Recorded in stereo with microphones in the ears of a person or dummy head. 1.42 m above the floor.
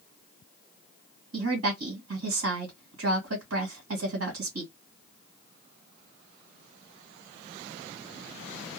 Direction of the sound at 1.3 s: 90° right.